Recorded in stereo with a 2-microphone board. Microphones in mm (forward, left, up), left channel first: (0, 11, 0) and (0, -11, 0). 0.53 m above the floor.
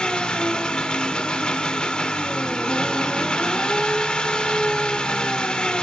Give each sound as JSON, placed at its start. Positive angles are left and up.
{"t": 0.0, "sound": "an engine running", "side_deg": 55, "distance_m": 0.8}